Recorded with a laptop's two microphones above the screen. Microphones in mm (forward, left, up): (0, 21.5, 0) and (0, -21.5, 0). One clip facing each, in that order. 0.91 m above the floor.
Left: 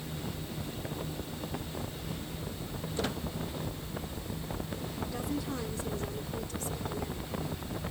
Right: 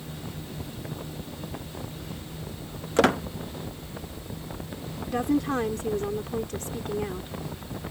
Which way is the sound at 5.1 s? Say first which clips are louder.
Right 13 dB; 55° right (ahead or behind).